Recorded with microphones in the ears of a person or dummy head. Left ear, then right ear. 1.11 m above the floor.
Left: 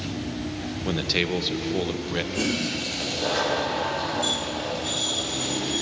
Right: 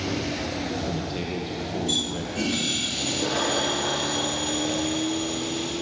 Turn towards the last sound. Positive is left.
turn(degrees=10)  # may be behind; listen again after turning